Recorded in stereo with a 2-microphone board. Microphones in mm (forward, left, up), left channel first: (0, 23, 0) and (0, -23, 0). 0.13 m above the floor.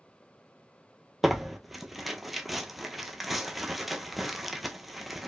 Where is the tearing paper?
Centre (ahead or behind), 0.6 m.